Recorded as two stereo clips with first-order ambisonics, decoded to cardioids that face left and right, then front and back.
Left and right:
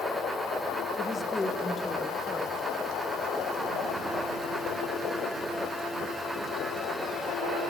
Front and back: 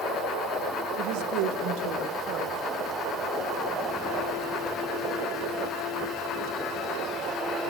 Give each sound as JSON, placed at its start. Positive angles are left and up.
{"t": 1.0, "sound": "a woman speaking", "azimuth_deg": 165, "distance_m": 1.4}